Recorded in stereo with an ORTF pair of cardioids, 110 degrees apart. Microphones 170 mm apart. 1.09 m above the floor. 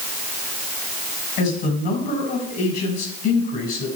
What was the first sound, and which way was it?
A man speaking, 70° left.